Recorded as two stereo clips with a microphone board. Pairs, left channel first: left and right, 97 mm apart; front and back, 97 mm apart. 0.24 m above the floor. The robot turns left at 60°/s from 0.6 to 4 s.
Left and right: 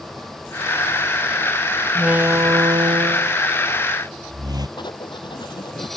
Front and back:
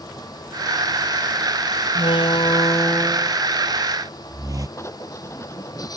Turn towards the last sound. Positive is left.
turn(degrees=60)